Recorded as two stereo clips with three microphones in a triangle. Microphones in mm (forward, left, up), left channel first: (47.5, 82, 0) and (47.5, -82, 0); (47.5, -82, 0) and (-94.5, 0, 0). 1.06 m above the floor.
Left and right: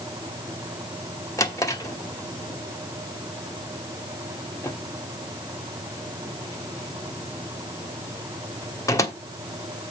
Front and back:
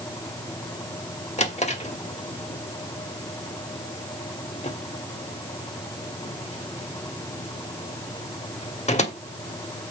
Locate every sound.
1.4 s a drawer: 15° left, 1.3 m